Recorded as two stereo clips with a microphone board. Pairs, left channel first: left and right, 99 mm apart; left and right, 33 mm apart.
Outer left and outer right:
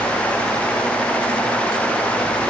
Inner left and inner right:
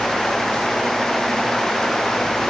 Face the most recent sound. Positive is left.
No sound to turn to.